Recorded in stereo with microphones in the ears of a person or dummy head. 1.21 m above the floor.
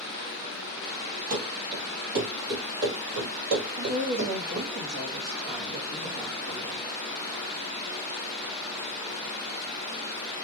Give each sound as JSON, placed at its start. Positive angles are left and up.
{"t": 1.3, "sound": "running footsteps", "side_deg": -45, "distance_m": 2.0}
{"t": 3.8, "sound": "a woman speaking", "side_deg": -55, "distance_m": 1.1}